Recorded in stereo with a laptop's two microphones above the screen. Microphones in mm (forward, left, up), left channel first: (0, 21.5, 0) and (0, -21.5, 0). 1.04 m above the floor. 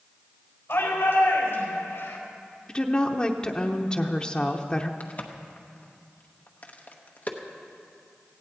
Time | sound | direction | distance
0.7 | a shout | 60° left (ahead or behind) | 4.5 m
2.7 | a woman speaking | 20° left (ahead or behind) | 0.8 m
5.0 | a crack | 40° left (ahead or behind) | 1.0 m